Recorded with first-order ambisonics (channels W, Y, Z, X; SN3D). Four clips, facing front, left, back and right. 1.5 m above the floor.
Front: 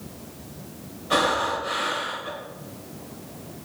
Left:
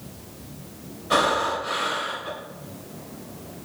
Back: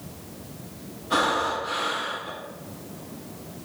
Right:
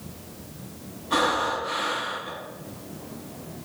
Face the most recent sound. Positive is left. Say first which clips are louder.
# left 2 dB, front 1 dB
turn(degrees=55)